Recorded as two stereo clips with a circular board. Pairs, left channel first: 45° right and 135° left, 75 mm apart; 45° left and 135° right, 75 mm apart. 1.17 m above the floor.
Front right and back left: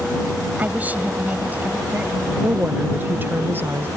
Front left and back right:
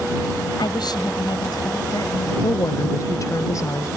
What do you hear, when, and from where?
0.6 s a woman speaking: 65° left
2.4 s a woman speaking: 80° left